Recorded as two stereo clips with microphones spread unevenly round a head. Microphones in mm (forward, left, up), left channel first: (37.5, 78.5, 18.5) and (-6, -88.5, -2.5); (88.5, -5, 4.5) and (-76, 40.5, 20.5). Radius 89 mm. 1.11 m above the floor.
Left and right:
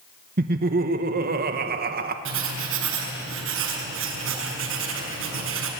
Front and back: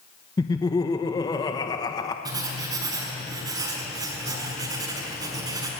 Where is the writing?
125° right, 5.5 m.